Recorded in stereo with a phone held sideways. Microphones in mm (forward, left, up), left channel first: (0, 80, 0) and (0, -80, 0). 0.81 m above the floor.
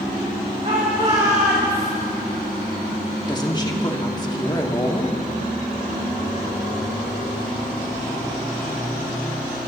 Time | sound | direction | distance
0.6 | a shout | 45° right (ahead or behind) | 1.8 m
3.3 | a woman speaking | 25° left (ahead or behind) | 1.5 m